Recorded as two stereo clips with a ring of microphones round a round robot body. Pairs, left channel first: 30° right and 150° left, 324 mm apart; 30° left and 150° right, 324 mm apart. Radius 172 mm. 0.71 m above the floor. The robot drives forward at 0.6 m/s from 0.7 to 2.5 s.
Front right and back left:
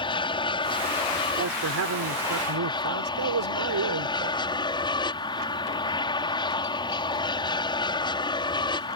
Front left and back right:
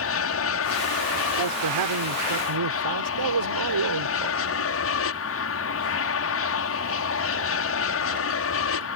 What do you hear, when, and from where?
0.0 s an aircraft: 40° left
1.4 s a man speaking: 165° right; by 4.4 s 170° right